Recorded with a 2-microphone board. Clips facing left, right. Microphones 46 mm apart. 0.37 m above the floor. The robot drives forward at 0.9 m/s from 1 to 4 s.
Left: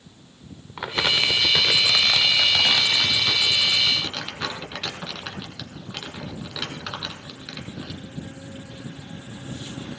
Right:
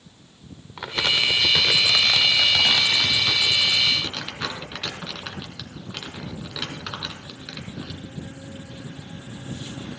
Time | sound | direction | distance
0.8 | crumpling | 15° left (ahead or behind) | 0.6 m